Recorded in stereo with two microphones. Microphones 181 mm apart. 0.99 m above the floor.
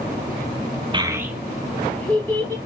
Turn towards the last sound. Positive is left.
turn(degrees=10)  # may be behind; listen again after turning